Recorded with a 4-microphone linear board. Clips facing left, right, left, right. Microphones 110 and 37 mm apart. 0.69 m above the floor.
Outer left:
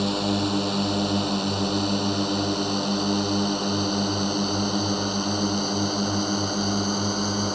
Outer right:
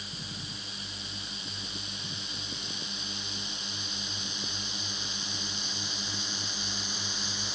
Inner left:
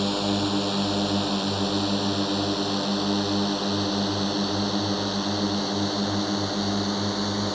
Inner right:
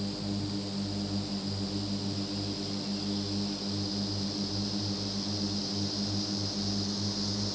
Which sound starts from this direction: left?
A drone, at 0.0 s.